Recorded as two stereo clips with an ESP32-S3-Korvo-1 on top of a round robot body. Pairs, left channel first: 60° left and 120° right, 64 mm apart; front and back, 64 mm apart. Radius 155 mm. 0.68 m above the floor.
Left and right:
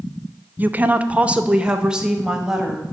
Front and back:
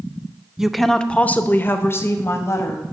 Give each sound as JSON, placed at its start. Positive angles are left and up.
{"t": 0.6, "sound": "a woman speaking", "azimuth_deg": -105, "distance_m": 0.7}